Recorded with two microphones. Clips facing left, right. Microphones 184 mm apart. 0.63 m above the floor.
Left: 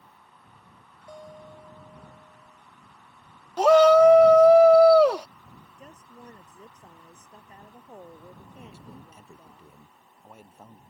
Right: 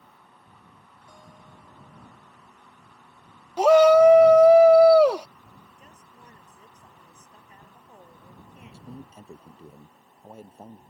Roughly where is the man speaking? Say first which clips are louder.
Right 6 dB; right.